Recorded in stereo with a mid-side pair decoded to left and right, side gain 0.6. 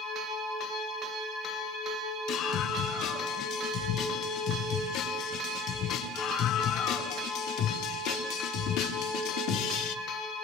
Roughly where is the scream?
Ahead left.